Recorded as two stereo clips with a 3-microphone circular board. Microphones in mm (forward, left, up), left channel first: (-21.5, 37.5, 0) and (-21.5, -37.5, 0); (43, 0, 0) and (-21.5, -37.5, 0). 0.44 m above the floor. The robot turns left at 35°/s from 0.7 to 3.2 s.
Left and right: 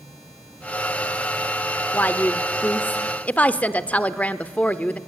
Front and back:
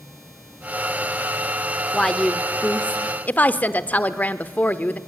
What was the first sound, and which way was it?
A woman speaking, 100° left.